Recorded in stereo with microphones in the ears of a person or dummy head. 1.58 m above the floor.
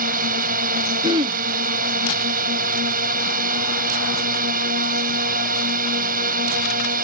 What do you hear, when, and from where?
0.0 s a drone: 45° right (ahead or behind)
1.0 s throat clearing: 25° right (ahead or behind)